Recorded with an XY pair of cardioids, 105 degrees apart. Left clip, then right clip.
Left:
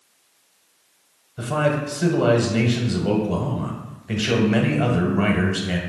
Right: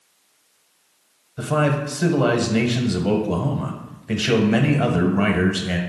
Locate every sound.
1.4 s a man speaking: 20° right, 0.9 m